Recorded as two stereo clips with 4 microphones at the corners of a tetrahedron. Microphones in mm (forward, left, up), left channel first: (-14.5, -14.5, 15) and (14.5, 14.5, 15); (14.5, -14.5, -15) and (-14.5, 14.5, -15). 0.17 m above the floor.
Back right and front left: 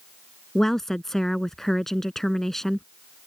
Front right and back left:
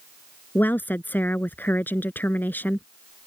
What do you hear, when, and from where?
0.6 s a woman speaking: 55° right